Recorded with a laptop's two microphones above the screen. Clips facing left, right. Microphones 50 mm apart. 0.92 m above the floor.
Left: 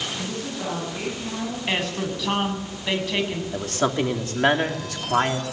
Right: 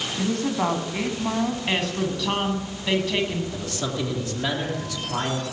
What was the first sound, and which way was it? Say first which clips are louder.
A woman speaking: right 6 dB; 75° right (ahead or behind).